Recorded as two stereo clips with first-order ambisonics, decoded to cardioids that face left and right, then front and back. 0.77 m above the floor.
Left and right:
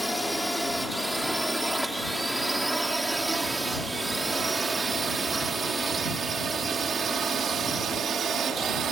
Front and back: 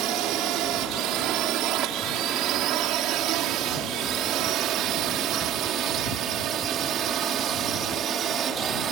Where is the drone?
175° left; by 8.9 s 135° right.